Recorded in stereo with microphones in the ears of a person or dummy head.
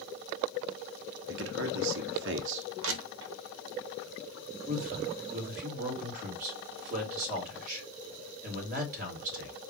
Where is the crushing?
65° right (ahead or behind), 1.0 m.